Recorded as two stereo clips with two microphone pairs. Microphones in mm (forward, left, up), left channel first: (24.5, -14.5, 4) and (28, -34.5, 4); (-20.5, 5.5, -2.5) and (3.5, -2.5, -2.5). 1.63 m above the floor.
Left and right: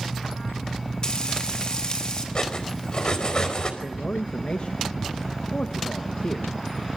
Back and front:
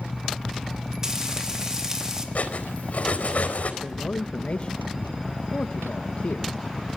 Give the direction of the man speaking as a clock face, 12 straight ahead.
8 o'clock.